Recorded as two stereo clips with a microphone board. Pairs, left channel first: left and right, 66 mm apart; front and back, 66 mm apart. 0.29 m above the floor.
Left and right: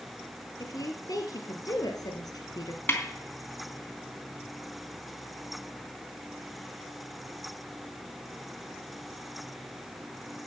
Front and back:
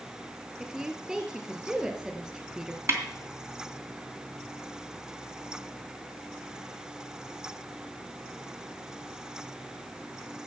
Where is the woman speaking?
105° left, 4 m.